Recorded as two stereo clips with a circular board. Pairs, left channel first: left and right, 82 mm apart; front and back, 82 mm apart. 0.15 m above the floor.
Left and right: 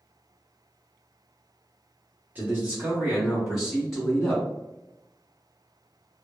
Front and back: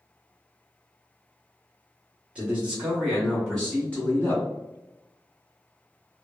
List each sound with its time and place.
2.4 s a man speaking: 125° right, 1.8 m; by 4.4 s 15° left, 1.7 m